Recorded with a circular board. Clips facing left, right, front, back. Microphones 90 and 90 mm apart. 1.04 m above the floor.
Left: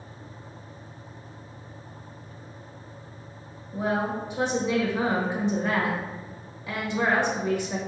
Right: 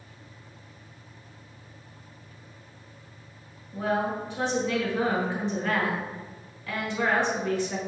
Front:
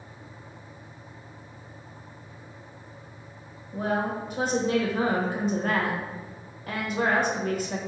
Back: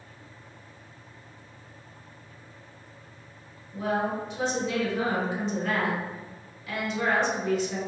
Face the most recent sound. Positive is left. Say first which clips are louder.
# even, even
turn(degrees=25)